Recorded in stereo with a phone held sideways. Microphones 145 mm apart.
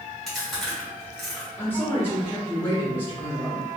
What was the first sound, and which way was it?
Chewing, centre (ahead or behind).